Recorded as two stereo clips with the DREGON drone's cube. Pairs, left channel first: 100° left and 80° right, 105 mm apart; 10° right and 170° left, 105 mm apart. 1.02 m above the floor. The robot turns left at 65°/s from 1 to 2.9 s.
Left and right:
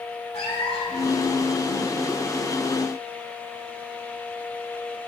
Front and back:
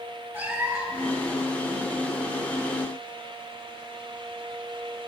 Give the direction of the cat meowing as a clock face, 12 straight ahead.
9 o'clock.